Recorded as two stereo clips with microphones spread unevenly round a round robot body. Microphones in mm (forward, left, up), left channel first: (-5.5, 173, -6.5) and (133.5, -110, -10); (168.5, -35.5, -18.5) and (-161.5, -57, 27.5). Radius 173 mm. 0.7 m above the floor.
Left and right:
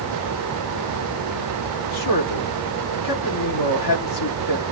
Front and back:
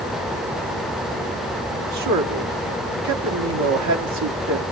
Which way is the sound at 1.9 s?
140° left.